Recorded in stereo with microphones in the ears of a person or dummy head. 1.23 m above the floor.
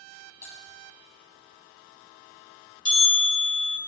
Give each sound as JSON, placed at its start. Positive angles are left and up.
{"t": 0.4, "sound": "typing on a keyboard", "side_deg": 15, "distance_m": 3.0}
{"t": 2.9, "sound": "a bell", "side_deg": 25, "distance_m": 1.6}